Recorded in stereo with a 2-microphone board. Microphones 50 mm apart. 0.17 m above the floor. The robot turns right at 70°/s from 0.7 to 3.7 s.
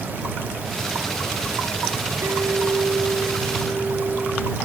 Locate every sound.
2.2 s a clink: 105° right; by 4.5 s straight ahead